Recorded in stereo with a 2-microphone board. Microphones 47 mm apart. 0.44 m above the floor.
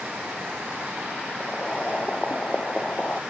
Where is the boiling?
25° left (ahead or behind).